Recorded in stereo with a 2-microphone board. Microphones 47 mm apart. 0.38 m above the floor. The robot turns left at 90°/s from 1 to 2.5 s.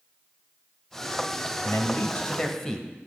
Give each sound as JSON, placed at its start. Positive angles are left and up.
{"t": 1.6, "sound": "a man speaking", "azimuth_deg": 90, "distance_m": 1.4}